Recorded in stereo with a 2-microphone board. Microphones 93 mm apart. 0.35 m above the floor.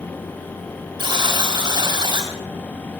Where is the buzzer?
55° right (ahead or behind), 4.5 m.